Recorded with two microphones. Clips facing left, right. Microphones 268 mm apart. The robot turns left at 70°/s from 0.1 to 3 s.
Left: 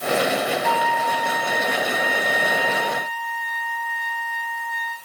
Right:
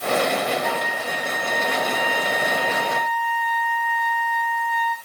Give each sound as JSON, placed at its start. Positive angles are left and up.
{"t": 0.6, "sound": "a trumpet", "azimuth_deg": -5, "distance_m": 1.2}